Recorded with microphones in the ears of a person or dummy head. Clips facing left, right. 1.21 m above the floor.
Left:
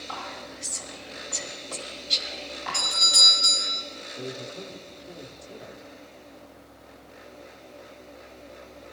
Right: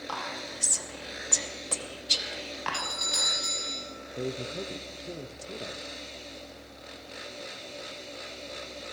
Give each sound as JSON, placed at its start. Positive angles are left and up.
{"t": 0.1, "sound": "whispering", "side_deg": -60, "distance_m": 1.9}
{"t": 2.7, "sound": "a doorbell", "side_deg": 5, "distance_m": 2.0}
{"t": 4.2, "sound": "a man speaking", "side_deg": -35, "distance_m": 0.6}